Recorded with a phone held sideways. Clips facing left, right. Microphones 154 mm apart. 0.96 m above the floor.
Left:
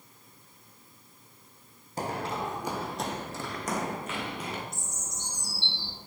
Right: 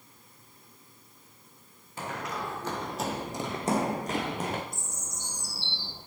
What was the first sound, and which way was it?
Running footsteps, 35° left (ahead or behind).